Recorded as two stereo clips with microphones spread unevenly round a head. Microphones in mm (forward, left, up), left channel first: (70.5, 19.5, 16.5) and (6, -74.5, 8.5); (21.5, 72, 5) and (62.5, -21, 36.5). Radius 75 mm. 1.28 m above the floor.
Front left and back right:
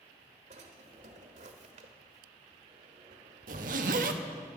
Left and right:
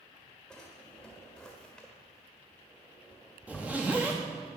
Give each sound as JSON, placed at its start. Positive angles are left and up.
{"t": 0.5, "sound": "a drawer", "azimuth_deg": -145, "distance_m": 1.4}
{"t": 3.5, "sound": "a zipper", "azimuth_deg": -140, "distance_m": 1.1}